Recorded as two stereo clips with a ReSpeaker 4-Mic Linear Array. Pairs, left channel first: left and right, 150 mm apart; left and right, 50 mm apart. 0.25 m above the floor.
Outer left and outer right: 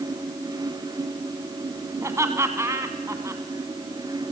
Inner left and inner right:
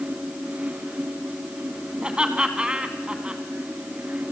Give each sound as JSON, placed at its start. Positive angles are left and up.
{"t": 2.0, "sound": "laughter", "side_deg": -20, "distance_m": 2.0}